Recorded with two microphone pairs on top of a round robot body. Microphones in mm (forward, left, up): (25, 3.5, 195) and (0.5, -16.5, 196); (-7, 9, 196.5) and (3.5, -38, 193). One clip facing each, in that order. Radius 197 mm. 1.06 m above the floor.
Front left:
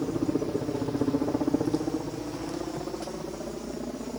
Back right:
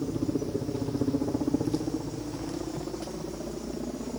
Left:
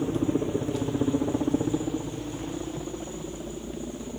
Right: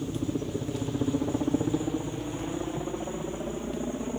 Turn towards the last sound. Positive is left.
turn(degrees=-40)